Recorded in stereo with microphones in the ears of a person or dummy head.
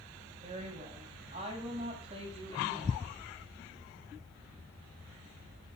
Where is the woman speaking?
45° right (ahead or behind), 8 m; by 3.1 s 40° right (ahead or behind), 10 m.